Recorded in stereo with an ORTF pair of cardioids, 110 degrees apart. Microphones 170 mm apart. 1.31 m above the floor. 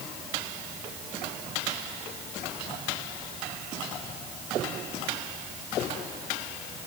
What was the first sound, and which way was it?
Only background noise.